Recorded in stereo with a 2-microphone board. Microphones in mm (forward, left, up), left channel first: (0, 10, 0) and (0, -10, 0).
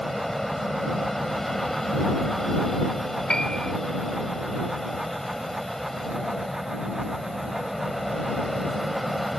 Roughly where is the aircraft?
Centre.